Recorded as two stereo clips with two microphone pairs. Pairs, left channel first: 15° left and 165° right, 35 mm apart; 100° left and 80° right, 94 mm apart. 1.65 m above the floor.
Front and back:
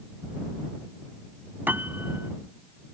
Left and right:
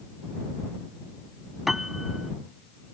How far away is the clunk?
I don't hear a clunk.